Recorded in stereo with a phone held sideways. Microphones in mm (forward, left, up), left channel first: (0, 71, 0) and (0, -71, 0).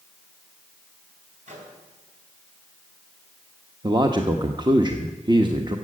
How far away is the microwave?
About 4 m.